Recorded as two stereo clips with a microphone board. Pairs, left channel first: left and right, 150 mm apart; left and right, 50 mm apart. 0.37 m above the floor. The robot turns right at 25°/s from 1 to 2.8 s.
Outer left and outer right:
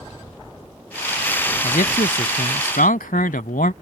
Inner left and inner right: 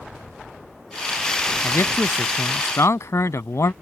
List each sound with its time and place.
1.6 s a man speaking: 65° left (ahead or behind); by 3.7 s 70° left (ahead or behind)